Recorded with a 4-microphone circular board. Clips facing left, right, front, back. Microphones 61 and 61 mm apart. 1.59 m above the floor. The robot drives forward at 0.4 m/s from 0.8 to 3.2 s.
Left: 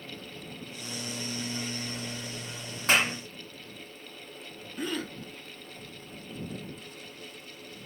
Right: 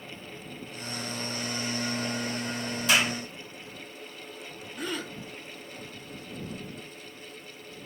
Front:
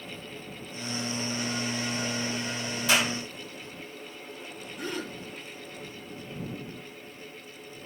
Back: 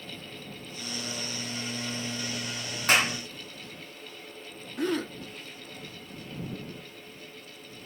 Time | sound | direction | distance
2.9 | a clap | 135° left | 3.5 m
4.8 | a gasp | straight behind | 1.9 m